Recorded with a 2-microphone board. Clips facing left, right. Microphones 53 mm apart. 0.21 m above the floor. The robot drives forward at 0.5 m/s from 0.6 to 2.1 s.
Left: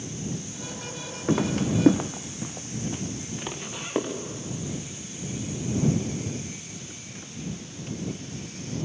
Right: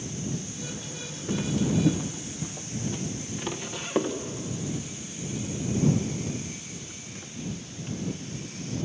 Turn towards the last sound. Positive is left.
turn(degrees=5)  # may be behind; listen again after turning